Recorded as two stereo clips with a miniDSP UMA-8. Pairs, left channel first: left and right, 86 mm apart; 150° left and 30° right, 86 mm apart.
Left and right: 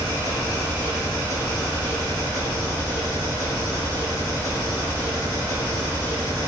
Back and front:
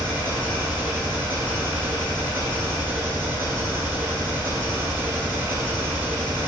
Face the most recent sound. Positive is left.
turn(degrees=35)